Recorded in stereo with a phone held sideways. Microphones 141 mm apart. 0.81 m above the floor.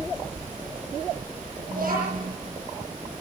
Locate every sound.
1.7 s a child speaking: 90° right, 9.5 m